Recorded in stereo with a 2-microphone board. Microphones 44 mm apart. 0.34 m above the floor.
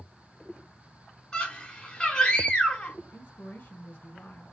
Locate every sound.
1.3 s a scream: 15° left (ahead or behind), 0.9 m
3.1 s a woman speaking: 40° left (ahead or behind), 1.1 m